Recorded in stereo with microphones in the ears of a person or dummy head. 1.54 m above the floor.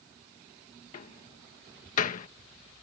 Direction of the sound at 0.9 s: 40° left (ahead or behind).